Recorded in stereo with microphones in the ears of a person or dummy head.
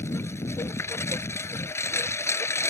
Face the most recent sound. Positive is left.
turn(degrees=15)  # may be behind; listen again after turning